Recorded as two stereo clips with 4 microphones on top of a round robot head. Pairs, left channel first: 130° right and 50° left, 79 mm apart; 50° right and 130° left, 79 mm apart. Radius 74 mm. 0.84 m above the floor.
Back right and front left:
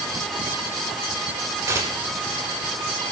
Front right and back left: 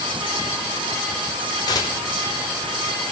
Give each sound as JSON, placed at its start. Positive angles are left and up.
{"t": 1.7, "sound": "tearing paper", "azimuth_deg": -5, "distance_m": 1.0}